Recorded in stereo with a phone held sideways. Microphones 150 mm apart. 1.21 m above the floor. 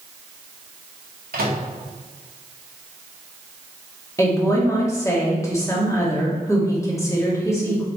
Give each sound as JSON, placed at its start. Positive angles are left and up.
{"t": 1.3, "sound": "a microwave", "side_deg": -85, "distance_m": 1.9}
{"t": 4.2, "sound": "a woman speaking", "side_deg": 20, "distance_m": 2.0}